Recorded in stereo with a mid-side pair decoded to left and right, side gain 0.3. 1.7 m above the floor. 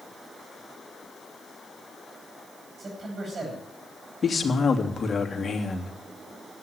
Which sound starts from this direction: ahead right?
A man speaking, at 2.8 s.